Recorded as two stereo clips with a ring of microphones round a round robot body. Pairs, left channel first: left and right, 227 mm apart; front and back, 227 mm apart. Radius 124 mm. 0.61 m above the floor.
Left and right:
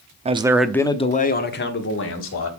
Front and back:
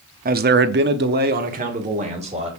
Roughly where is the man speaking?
Behind right.